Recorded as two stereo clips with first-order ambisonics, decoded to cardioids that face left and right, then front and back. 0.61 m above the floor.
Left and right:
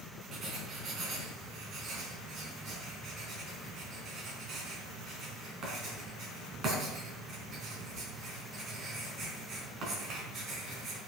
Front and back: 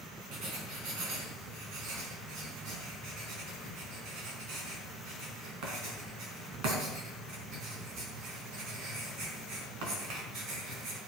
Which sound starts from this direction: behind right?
Writing, at 0.3 s.